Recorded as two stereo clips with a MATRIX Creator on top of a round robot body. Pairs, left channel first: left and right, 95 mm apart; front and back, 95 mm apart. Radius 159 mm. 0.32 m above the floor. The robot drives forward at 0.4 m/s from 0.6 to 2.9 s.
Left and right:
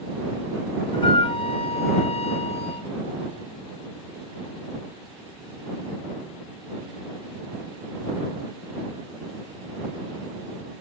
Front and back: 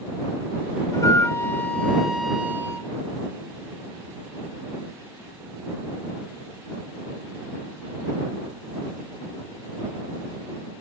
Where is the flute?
55° left, 0.8 m; by 2.9 s 115° left, 0.8 m.